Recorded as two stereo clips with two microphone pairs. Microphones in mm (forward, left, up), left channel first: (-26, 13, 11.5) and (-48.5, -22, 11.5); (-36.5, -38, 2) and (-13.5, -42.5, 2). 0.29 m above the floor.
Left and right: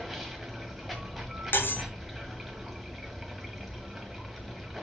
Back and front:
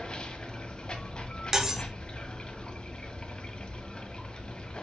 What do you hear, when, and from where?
0.0 s running water: 150° left, 1.6 m
1.5 s cutlery clinking: 60° left, 1.1 m